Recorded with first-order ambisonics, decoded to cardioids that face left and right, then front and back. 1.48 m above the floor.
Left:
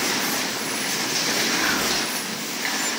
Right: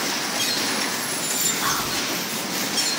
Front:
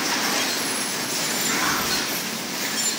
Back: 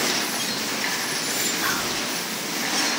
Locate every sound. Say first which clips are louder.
1.6 s whispering: left 2 dB, front 2 dB; 60° right, 2.5 m